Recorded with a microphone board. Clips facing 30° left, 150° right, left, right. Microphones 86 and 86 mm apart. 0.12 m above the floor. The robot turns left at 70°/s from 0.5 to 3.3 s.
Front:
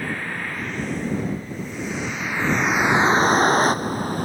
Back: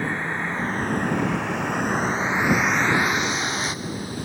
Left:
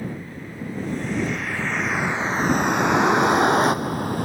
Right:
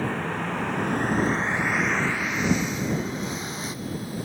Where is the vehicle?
80° right; by 4.2 s 70° left.